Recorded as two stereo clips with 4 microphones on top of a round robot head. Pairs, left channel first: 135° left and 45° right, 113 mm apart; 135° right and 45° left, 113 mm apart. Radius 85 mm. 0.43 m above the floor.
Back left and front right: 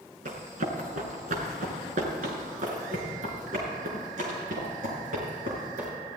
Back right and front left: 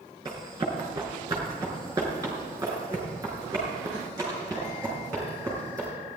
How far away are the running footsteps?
About 3 m.